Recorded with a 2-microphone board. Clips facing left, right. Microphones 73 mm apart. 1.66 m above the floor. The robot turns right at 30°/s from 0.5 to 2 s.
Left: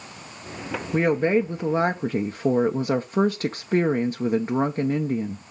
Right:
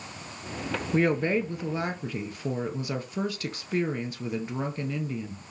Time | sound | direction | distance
0.9 | a woman speaking | 15° left | 0.8 m